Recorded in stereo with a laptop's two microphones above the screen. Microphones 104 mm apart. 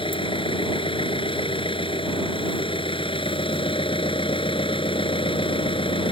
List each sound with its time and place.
0.0 s an engine running: 55° left (ahead or behind)